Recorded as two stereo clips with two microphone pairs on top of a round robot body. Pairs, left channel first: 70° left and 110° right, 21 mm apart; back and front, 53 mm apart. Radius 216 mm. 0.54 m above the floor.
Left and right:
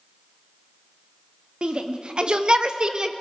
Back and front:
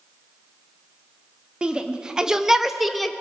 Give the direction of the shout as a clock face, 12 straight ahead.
3 o'clock.